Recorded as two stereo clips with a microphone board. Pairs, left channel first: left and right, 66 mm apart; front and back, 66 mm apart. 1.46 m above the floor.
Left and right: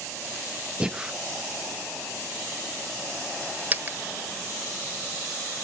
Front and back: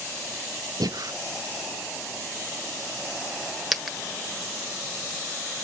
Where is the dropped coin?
95° right, 1.3 m.